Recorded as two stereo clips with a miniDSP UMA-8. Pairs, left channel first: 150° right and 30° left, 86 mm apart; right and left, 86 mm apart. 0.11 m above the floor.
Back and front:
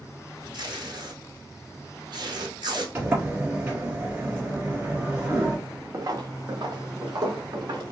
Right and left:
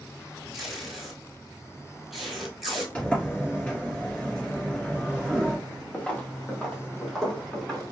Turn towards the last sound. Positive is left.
turn(degrees=-5)